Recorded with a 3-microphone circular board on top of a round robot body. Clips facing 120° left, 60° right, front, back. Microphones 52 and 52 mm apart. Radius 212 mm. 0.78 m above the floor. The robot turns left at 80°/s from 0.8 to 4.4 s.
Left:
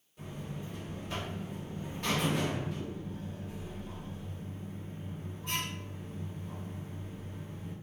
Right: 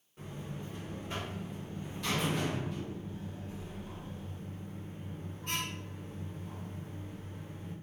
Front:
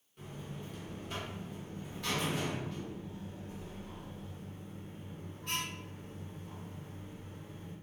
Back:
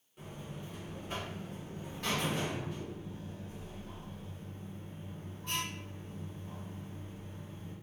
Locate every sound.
0.2 s a buzzer: 95° right, 1.2 m; by 7.7 s 25° right, 1.2 m